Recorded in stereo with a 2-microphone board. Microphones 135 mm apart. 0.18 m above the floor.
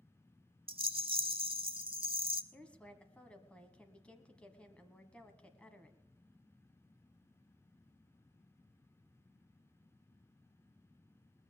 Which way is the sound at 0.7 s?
40° right (ahead or behind).